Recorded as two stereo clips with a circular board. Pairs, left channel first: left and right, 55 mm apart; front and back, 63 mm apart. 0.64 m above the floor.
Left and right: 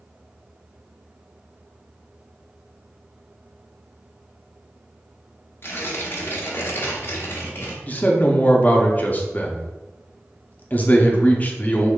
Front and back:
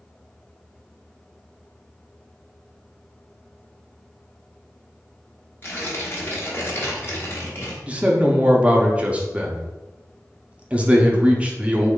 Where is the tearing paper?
50° left, 1.0 m.